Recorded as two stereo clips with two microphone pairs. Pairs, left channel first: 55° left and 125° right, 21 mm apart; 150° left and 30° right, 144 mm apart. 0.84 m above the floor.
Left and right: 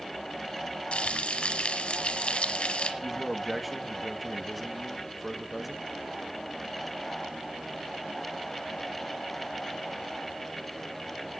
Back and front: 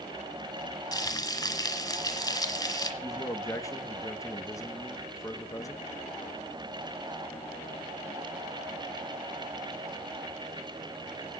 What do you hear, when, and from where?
0.9 s frying: 85° left, 2.5 m
3.0 s a man speaking: 165° left, 1.0 m